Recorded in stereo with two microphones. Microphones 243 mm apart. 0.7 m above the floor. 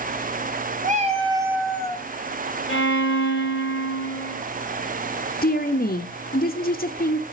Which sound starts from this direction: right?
A cat meowing, at 0.8 s.